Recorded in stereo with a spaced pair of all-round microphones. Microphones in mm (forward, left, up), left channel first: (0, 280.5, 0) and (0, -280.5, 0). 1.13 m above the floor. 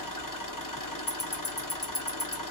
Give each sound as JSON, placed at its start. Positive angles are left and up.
{"t": 0.0, "sound": "an engine running", "side_deg": 35, "distance_m": 0.8}
{"t": 1.1, "sound": "ticking", "side_deg": 25, "distance_m": 0.8}